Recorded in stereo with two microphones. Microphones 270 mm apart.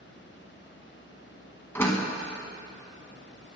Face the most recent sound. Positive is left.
turn(degrees=10)  # may be behind; listen again after turning